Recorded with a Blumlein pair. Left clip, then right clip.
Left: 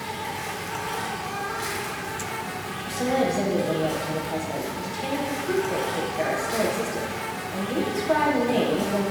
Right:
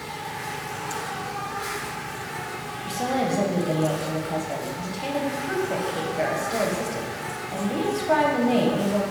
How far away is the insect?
About 0.8 m.